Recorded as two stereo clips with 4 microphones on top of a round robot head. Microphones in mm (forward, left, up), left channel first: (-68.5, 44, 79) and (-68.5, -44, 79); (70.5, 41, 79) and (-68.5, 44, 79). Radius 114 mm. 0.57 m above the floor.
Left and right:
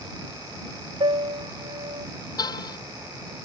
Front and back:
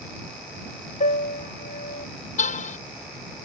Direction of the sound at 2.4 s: 35° left.